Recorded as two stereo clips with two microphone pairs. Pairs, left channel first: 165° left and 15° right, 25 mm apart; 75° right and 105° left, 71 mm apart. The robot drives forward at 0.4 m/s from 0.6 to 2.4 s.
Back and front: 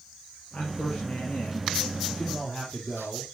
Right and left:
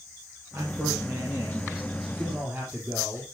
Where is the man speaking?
145° left, 2.5 m; by 3.2 s 155° left, 3 m.